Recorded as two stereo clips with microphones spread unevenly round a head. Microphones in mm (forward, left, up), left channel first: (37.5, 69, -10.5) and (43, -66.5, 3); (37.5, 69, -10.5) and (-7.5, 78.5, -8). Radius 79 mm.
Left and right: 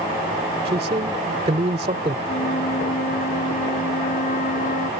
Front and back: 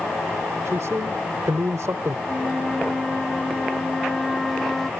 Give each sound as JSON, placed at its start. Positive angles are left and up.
{"t": 0.7, "sound": "a man speaking", "azimuth_deg": -140}
{"t": 2.3, "sound": "a flute", "azimuth_deg": 75}